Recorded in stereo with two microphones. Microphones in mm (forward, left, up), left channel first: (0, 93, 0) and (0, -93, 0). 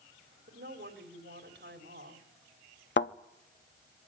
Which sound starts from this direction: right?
A woman speaking, at 0.5 s.